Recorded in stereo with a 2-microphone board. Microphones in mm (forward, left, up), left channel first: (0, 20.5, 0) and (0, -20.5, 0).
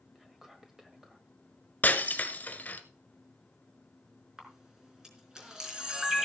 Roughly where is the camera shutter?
Centre.